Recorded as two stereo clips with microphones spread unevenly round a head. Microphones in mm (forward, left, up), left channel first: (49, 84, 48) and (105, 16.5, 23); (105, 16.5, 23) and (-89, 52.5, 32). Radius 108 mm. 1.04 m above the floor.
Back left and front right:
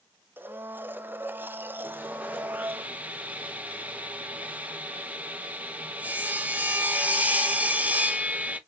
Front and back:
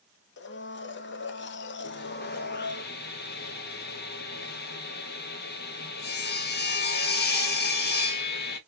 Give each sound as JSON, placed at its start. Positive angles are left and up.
{"t": 0.4, "sound": "a blender", "azimuth_deg": 10, "distance_m": 0.7}
{"t": 1.8, "sound": "sawing", "azimuth_deg": 10, "distance_m": 1.3}